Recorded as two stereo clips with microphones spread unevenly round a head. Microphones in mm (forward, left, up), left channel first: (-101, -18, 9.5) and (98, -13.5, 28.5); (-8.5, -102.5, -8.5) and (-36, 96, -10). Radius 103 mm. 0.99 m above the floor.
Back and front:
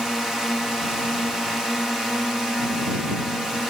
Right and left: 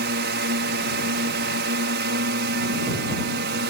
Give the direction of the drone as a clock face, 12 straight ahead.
9 o'clock.